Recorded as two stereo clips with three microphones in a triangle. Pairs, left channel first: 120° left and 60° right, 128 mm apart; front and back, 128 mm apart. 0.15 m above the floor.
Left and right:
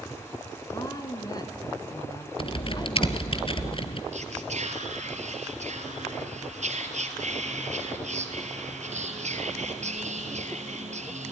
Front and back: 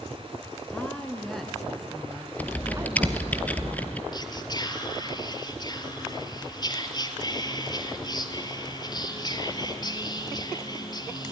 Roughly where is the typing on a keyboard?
Left.